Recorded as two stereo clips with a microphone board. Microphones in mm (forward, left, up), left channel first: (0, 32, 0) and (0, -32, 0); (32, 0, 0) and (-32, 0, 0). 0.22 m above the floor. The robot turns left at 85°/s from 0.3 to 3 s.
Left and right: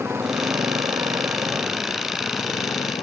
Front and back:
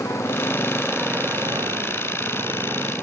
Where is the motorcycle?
40° right; by 3.0 s 90° left.